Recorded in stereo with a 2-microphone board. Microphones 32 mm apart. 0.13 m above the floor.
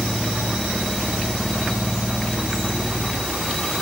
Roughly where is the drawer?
No drawer in this recording.